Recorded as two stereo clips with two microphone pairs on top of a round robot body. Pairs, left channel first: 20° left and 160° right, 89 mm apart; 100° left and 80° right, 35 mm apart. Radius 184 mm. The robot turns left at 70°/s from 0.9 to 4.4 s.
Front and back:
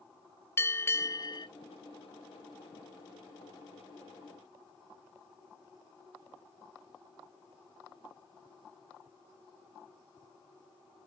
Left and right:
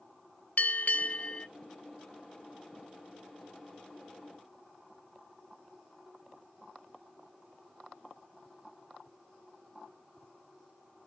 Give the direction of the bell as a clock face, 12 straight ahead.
9 o'clock.